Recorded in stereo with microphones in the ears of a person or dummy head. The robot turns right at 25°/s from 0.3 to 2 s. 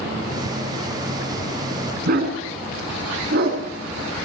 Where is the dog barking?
55° right (ahead or behind), 6 m.